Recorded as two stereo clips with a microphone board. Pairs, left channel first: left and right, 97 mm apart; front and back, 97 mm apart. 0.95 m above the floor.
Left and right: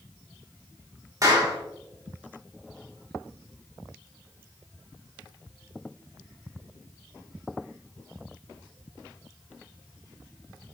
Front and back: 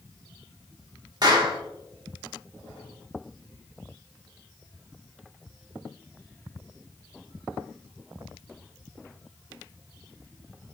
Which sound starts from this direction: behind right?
A clap, at 1.2 s.